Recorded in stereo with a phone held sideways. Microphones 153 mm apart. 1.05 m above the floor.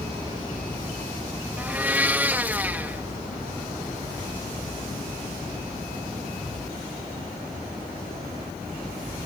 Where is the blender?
10° right (ahead or behind).